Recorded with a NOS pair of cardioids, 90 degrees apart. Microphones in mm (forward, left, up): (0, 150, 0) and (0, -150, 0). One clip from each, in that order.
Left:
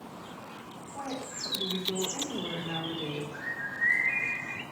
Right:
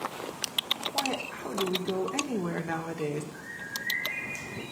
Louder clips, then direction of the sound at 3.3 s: Left 5 dB; 60° left.